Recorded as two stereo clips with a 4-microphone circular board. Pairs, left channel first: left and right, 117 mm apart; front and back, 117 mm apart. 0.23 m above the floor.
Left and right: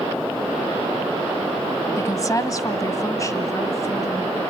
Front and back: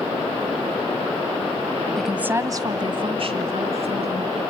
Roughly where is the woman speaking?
Left.